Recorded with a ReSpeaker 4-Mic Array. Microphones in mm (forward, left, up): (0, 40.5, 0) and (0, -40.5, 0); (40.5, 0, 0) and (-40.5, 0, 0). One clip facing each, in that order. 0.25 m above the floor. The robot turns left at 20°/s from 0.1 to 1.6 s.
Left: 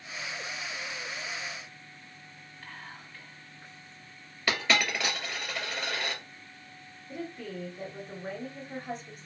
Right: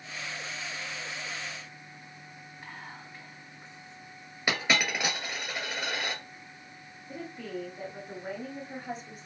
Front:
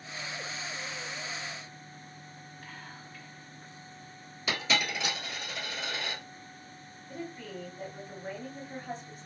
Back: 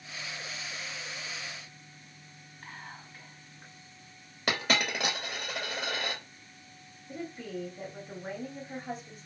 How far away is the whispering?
About 1.9 m.